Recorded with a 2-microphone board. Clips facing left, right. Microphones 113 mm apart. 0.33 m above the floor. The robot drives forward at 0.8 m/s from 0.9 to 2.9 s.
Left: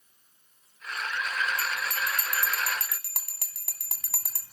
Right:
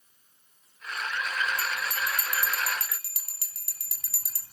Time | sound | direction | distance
1.6 | a bell | 50° left (ahead or behind) | 2.5 m